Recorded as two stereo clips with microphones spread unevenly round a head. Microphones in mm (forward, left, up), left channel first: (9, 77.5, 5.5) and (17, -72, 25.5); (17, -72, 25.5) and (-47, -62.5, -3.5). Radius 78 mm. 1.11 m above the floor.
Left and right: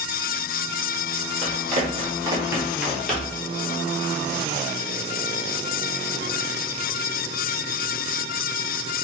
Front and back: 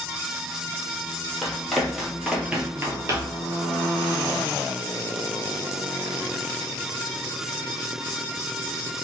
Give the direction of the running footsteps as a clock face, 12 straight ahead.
2 o'clock.